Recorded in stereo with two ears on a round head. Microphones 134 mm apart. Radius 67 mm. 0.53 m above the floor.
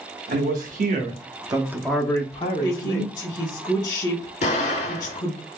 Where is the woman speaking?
25° left (ahead or behind), 1.1 m.